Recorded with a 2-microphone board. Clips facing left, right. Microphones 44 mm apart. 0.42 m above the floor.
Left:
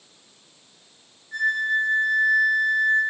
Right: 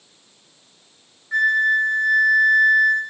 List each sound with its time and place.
1.3 s a flute: 70° right (ahead or behind), 0.7 m